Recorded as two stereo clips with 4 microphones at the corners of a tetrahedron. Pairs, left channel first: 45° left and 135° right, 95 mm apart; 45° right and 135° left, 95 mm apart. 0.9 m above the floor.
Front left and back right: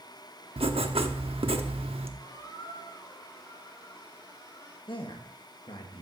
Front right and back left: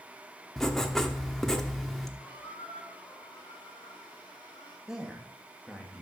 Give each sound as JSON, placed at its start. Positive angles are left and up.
{"t": 0.6, "sound": "writing", "azimuth_deg": -130, "distance_m": 0.9}
{"t": 2.2, "sound": "a squeak", "azimuth_deg": -15, "distance_m": 5.5}
{"t": 4.9, "sound": "a man speaking", "azimuth_deg": 55, "distance_m": 1.3}